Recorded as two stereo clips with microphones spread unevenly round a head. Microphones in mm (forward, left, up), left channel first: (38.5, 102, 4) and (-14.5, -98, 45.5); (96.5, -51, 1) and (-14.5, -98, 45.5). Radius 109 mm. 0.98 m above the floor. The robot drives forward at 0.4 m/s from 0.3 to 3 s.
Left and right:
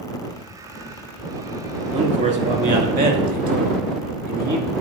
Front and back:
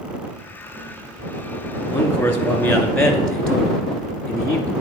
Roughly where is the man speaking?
Ahead right.